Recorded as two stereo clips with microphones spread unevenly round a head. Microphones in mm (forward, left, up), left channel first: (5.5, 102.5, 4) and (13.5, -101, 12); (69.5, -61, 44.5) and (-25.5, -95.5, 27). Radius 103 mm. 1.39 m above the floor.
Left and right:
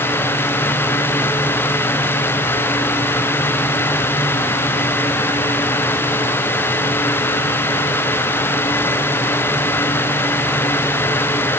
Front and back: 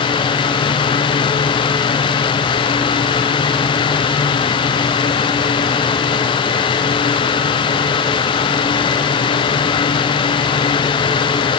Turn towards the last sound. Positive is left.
No sound to turn to.